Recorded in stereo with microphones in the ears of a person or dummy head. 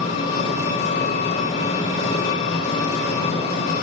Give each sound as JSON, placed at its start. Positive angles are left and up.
{"t": 0.0, "sound": "an engine running", "side_deg": 40, "distance_m": 2.0}